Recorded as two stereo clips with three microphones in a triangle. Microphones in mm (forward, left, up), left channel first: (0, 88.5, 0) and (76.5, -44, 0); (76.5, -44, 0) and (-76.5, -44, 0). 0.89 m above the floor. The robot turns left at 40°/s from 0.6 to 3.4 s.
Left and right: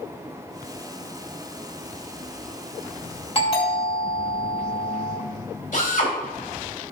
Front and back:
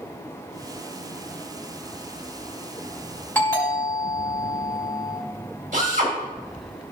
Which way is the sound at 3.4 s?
75° left.